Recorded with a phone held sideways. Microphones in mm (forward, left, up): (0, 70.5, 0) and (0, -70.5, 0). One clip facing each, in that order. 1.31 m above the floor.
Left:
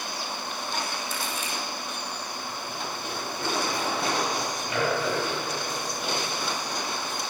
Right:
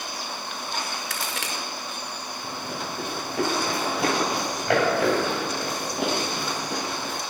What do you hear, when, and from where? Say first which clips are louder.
1.1 s a crack: even; 80° right, 5.5 m
2.4 s running footsteps: right 5 dB; 75° right (ahead or behind), 7.5 m; by 7.2 s 80° right, 9.5 m